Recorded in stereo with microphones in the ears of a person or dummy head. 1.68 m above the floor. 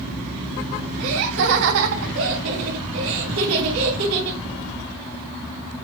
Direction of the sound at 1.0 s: 75° right (ahead or behind).